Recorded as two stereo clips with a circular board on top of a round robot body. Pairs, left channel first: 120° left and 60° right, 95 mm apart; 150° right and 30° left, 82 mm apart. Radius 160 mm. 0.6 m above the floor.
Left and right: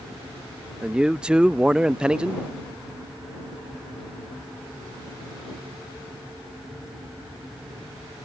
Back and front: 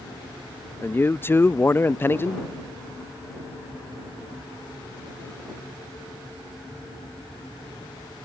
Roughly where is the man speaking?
Behind right.